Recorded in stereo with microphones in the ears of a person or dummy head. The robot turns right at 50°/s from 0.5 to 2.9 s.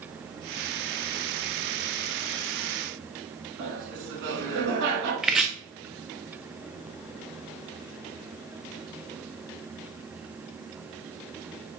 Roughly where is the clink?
I don't hear a clink.